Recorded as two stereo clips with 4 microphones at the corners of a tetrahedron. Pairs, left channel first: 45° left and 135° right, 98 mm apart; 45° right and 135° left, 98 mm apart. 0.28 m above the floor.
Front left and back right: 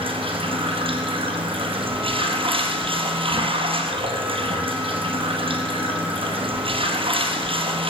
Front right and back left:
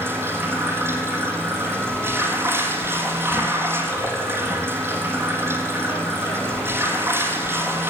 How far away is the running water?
About 2 m.